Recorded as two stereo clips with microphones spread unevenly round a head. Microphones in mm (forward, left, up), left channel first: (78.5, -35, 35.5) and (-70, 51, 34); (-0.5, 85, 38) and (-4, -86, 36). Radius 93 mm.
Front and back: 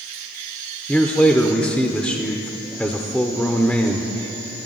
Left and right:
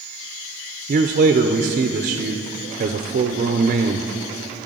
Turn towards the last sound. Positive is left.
turn(degrees=-115)